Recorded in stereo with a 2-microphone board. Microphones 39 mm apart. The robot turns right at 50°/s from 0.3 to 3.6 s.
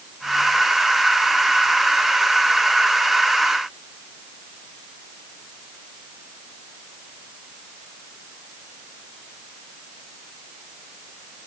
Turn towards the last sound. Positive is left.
No sound to turn to.